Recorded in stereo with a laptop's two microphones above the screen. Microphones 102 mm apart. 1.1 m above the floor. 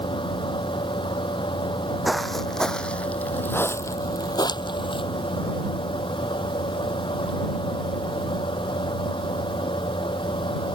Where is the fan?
55° left (ahead or behind).